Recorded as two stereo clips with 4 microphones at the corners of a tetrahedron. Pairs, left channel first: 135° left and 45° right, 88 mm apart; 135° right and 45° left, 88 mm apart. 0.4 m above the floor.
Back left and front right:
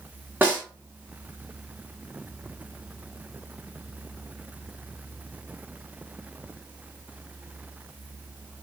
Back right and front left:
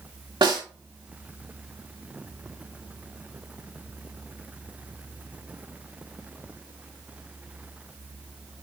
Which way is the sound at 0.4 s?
25° left.